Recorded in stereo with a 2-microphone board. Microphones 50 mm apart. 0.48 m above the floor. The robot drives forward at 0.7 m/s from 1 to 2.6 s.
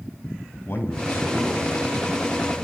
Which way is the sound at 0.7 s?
45° left (ahead or behind).